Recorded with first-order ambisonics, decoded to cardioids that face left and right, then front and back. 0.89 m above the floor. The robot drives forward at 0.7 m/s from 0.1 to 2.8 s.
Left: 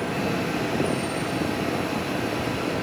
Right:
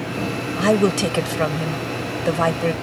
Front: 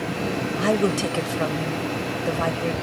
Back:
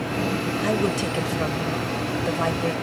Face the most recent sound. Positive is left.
turn(degrees=-95)